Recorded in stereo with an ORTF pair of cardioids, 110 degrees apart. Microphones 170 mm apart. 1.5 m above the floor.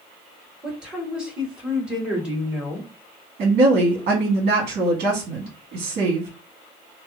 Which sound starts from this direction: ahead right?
A woman speaking, at 3.4 s.